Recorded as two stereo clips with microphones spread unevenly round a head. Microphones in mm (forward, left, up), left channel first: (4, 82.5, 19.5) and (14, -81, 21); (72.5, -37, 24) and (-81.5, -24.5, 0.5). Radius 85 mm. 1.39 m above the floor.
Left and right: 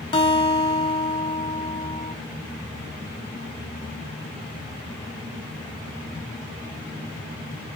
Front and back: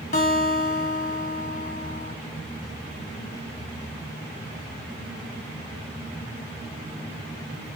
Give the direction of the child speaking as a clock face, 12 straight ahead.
I don't hear a child speaking.